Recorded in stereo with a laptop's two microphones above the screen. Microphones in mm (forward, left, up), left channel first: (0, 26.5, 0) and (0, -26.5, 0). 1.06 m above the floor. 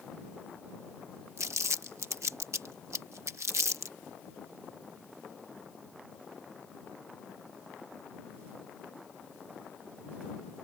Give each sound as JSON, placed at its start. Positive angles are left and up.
{"t": 1.4, "sound": "crumpling", "side_deg": -65}